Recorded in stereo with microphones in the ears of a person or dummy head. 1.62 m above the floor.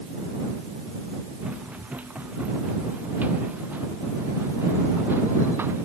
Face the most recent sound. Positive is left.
turn(degrees=-15)  # may be behind; listen again after turning